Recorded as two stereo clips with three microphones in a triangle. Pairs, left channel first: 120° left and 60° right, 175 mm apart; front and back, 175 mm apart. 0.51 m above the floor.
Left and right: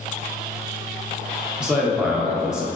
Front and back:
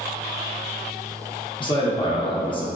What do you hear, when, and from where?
1.6 s a man speaking: 20° left, 0.7 m